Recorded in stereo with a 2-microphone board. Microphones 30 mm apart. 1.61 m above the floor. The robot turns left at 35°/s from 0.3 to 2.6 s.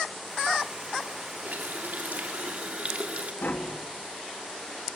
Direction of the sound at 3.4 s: 75° left (ahead or behind).